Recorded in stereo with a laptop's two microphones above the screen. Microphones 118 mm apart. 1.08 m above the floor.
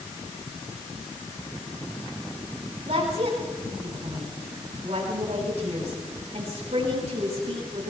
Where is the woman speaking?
60° right (ahead or behind), 8 m.